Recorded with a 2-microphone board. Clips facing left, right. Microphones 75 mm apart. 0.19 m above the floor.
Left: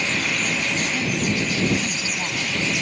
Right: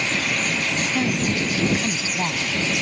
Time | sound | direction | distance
0.9 | a woman speaking | 25° right (ahead or behind) | ?